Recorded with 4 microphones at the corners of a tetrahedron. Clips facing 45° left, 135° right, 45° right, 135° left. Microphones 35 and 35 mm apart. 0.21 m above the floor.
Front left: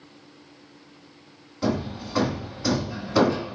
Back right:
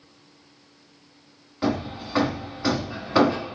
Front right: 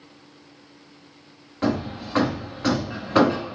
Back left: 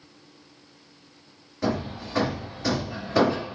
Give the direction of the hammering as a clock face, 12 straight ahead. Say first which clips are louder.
Back right 1 dB, front right 3 dB; 2 o'clock.